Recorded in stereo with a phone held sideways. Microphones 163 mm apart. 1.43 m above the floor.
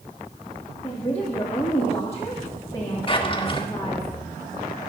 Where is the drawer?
35° left (ahead or behind), 1.3 m.